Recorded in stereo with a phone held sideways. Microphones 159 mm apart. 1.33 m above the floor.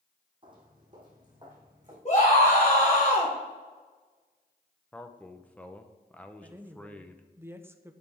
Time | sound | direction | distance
0.4 | footsteps | 30° right (ahead or behind) | 2.5 m
2.0 | a scream | 45° left (ahead or behind) | 1.6 m
4.9 | a man speaking | 10° left (ahead or behind) | 0.8 m
6.4 | a woman speaking | 15° right (ahead or behind) | 0.7 m